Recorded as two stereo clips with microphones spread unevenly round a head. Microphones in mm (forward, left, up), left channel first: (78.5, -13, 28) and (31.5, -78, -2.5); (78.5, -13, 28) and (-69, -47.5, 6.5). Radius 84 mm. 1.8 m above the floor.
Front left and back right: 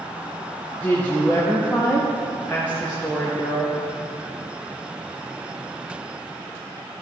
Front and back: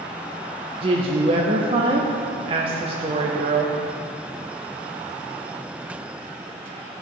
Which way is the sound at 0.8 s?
130° left.